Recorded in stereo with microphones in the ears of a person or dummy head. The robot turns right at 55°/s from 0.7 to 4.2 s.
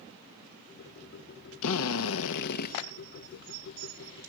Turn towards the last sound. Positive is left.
turn(degrees=-145)